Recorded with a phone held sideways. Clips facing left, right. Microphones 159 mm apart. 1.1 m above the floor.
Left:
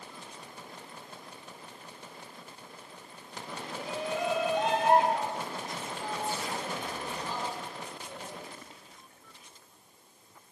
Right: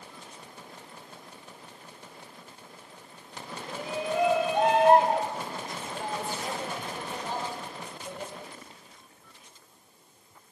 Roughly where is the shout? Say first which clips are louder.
Right 4 dB; right.